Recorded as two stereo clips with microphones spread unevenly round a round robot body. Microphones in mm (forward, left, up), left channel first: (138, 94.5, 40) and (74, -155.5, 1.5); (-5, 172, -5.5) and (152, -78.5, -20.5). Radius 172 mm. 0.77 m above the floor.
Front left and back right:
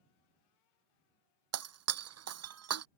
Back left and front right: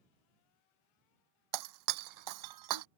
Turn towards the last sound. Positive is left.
turn(degrees=-80)